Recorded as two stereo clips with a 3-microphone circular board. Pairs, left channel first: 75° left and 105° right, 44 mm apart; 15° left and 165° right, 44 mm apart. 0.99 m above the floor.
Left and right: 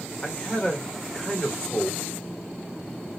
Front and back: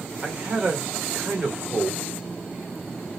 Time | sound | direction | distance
0.2 | a man speaking | 150° left | 1.4 m